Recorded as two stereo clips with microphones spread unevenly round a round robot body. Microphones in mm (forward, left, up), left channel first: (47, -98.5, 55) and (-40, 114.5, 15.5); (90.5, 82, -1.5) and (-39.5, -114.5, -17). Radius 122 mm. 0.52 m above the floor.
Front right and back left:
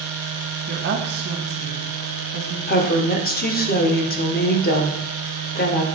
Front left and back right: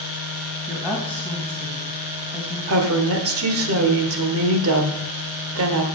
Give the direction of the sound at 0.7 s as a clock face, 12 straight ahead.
7 o'clock.